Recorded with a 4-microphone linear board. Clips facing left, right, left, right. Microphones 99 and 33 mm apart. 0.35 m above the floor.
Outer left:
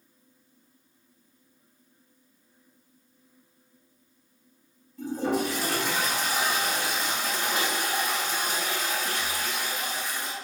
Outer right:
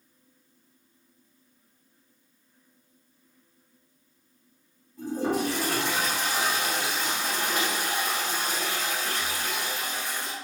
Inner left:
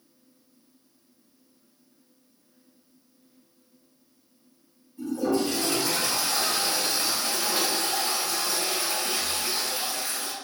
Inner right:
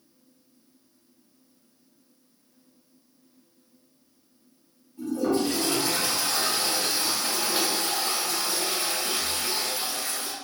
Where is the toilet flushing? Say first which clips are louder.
Even, even; 45° right (ahead or behind), 1.8 m.